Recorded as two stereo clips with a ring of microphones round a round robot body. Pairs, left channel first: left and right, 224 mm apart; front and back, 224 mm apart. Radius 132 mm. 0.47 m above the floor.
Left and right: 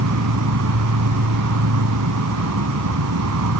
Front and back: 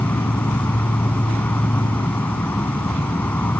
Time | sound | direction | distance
0.0 | an insect | 85° right | ?